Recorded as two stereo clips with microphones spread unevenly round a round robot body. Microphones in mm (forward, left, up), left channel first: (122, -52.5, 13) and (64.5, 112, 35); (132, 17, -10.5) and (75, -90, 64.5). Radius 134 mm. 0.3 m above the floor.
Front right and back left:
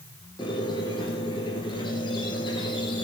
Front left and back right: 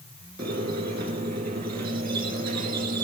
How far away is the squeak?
About 1.2 m.